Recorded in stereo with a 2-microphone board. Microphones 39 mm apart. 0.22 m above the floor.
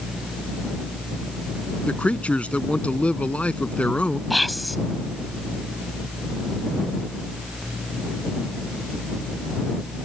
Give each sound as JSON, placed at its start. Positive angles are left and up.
{"t": 1.8, "sound": "a man speaking", "side_deg": 35}
{"t": 4.3, "sound": "whispering", "side_deg": 0}